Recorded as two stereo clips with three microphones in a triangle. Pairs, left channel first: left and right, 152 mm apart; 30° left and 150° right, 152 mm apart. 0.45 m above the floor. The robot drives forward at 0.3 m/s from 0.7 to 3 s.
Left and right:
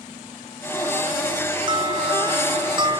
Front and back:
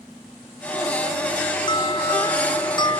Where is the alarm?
30° right.